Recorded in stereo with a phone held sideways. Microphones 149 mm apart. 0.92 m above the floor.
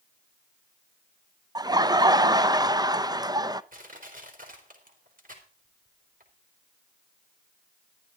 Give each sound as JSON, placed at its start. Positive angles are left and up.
{"t": 1.6, "sound": "laughter", "side_deg": -25, "distance_m": 0.6}
{"t": 3.7, "sound": "crushing", "side_deg": -70, "distance_m": 4.0}